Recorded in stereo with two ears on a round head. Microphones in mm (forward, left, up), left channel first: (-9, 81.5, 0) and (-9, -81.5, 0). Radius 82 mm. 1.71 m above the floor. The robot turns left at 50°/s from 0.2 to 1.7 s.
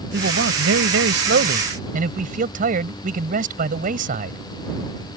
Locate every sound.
0.1 s a man speaking: 55° right; by 4.4 s 130° right